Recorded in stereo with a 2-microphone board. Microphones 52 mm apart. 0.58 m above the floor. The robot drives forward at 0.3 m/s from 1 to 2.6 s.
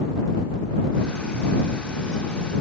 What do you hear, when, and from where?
Only background noise.